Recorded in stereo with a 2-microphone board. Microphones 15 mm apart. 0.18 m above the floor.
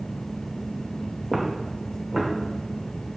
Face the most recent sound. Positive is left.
turn(degrees=-25)  # may be behind; listen again after turning